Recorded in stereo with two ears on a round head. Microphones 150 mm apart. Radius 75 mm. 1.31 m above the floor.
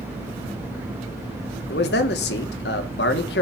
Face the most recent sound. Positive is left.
turn(degrees=65)  # may be behind; listen again after turning